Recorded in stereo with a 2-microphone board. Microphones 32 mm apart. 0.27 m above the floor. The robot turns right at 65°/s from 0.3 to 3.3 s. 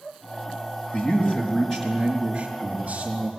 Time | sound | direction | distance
0.9 | a man speaking | 120° left | 4 m